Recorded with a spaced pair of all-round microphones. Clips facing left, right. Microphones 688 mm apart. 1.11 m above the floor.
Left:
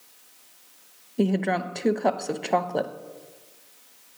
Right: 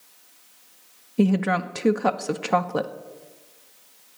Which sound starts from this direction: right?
A woman speaking, at 1.2 s.